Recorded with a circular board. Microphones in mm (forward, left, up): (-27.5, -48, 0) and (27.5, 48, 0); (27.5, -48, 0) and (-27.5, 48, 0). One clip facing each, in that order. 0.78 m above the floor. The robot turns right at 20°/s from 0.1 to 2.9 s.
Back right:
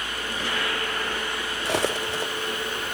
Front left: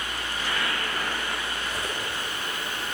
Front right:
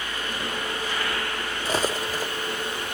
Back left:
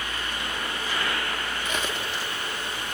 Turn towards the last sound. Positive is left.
turn(degrees=-90)